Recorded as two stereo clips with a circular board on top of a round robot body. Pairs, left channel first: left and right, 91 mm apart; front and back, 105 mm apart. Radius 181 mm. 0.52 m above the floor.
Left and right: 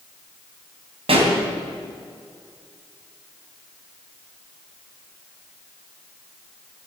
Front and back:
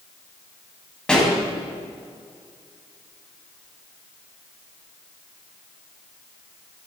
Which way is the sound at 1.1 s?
80° right.